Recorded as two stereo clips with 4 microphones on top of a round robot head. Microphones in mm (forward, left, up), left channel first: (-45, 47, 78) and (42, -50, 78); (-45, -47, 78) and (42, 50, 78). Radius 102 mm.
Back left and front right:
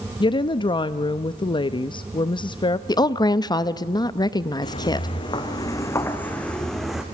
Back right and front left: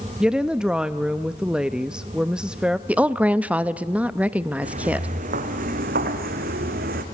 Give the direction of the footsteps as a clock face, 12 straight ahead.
9 o'clock.